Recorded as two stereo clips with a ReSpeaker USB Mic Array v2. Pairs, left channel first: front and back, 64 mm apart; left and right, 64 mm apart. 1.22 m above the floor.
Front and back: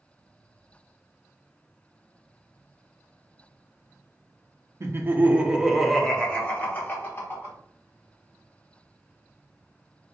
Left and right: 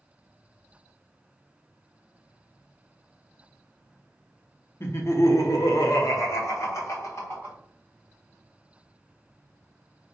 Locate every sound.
4.8 s laughter: 135° left, 0.8 m; by 7.5 s 45° left, 1.4 m